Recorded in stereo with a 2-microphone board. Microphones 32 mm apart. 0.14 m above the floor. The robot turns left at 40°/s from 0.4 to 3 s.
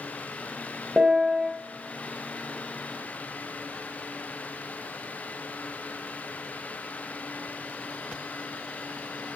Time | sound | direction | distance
1.0 | a piano | 35° right (ahead or behind) | 1.6 m